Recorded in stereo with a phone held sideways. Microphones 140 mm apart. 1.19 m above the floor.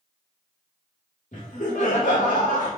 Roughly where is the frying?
I don't hear frying.